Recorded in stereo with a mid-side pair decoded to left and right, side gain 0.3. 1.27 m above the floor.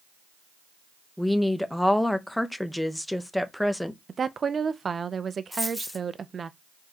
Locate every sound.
1.2 s a woman speaking: 10° left, 0.9 m
4.1 s a woman speaking: 55° right, 0.6 m
5.5 s a dropped coin: 10° left, 1.7 m